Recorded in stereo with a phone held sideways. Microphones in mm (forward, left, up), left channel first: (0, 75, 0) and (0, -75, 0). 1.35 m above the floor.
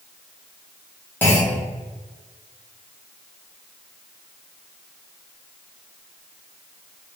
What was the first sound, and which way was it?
A clunk, 15° left (ahead or behind).